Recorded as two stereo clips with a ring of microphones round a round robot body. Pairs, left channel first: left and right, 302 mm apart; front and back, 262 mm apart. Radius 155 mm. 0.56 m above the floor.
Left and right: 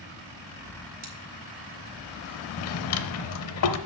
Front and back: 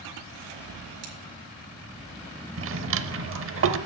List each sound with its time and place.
1.0 s scissors: 150° right, 2 m
2.6 s a drawer: 135° left, 0.7 m